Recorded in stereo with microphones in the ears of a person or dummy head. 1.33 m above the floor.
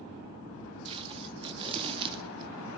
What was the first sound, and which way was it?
Tape being pulled, 20° right (ahead or behind).